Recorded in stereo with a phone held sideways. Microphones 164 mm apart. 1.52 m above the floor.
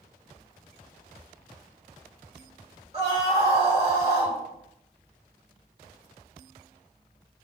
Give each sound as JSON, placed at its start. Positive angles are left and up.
{"t": 2.9, "sound": "a scream", "side_deg": -40, "distance_m": 1.6}